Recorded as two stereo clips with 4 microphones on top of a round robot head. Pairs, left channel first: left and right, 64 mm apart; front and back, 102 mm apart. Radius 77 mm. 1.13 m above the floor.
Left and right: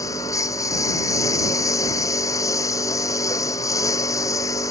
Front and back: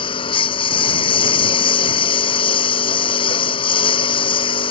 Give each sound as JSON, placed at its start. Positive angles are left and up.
{"t": 0.0, "sound": "a lawn mower", "azimuth_deg": 35}